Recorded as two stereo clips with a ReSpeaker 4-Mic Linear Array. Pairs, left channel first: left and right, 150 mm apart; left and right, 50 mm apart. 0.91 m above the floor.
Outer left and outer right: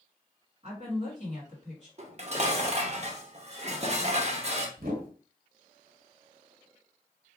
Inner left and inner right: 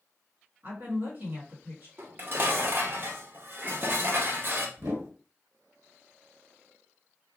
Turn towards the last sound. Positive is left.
turn(degrees=-70)  # may be behind; listen again after turning